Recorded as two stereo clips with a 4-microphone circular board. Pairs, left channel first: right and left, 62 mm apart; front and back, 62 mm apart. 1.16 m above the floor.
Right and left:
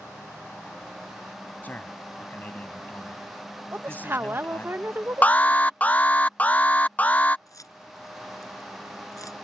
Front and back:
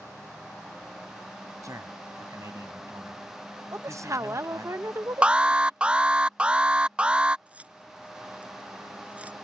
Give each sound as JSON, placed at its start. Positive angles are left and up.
{"t": 1.6, "sound": "a man speaking", "azimuth_deg": -150}
{"t": 3.7, "sound": "a woman speaking", "azimuth_deg": 140}
{"t": 5.2, "sound": "an alarm", "azimuth_deg": -125}
{"t": 7.5, "sound": "keys jangling", "azimuth_deg": -115}